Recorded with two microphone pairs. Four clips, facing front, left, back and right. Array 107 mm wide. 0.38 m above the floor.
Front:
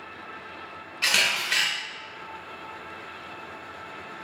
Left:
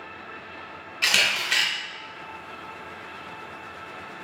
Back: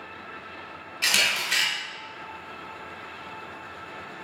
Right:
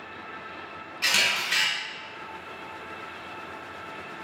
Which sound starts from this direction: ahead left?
A camera shutter, at 1.0 s.